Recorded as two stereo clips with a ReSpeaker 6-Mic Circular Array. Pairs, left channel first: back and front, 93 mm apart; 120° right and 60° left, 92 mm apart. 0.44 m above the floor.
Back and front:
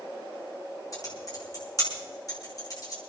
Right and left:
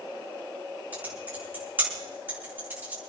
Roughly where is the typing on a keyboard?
Behind left.